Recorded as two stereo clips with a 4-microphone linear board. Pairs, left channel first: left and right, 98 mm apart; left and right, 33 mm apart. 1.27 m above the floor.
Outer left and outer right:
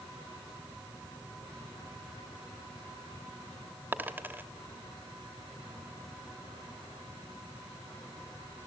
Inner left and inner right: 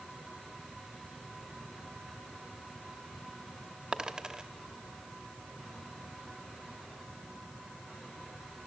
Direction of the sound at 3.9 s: 20° right (ahead or behind).